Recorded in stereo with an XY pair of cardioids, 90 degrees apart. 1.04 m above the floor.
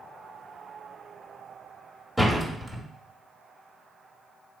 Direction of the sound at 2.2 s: 5° right.